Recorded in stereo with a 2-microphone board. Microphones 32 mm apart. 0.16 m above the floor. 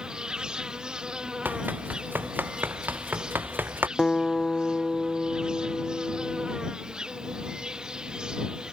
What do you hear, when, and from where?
0.0 s an insect: 25° right (ahead or behind)
1.4 s running footsteps: 75° right (ahead or behind); by 3.9 s 85° right
4.0 s a guitar: 20° left (ahead or behind)